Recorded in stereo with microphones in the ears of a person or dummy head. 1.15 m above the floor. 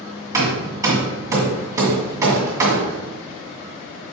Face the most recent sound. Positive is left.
turn(degrees=-10)  # may be behind; listen again after turning